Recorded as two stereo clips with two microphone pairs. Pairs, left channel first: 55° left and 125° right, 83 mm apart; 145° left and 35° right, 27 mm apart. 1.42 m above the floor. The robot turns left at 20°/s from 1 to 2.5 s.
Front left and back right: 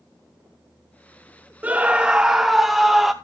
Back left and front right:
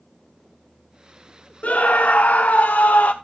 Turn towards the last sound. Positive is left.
turn(degrees=150)